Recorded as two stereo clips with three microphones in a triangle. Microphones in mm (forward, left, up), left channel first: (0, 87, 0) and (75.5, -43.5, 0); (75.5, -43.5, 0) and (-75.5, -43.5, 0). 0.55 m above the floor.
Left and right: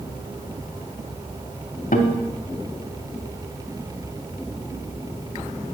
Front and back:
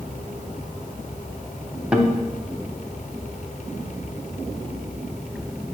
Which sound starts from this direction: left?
A guitar, at 1.9 s.